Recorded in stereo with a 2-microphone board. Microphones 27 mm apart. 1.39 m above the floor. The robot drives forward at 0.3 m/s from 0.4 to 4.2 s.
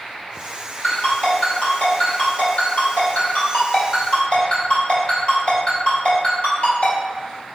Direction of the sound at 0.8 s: 65° left (ahead or behind).